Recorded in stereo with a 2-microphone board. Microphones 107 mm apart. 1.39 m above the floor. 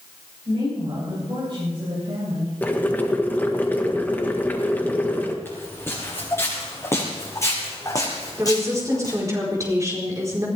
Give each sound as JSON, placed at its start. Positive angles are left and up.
{"t": 0.5, "sound": "a woman speaking", "side_deg": -50, "distance_m": 9.5}
{"t": 2.6, "sound": "boiling", "side_deg": 15, "distance_m": 1.4}
{"t": 5.5, "sound": "footsteps", "side_deg": 20, "distance_m": 5.5}
{"t": 8.4, "sound": "a woman speaking", "side_deg": -30, "distance_m": 4.5}